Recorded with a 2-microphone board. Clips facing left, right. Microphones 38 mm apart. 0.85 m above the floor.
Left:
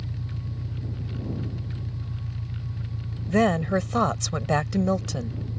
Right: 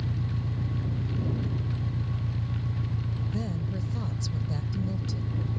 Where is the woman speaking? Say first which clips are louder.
Left 17 dB; 75° left (ahead or behind).